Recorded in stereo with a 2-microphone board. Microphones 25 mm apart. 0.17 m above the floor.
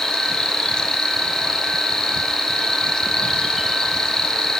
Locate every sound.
0.0 s an insect: 30° left (ahead or behind), 3 m